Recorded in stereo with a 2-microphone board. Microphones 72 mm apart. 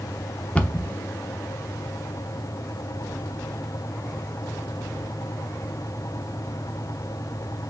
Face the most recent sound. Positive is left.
turn(degrees=20)  # may be behind; listen again after turning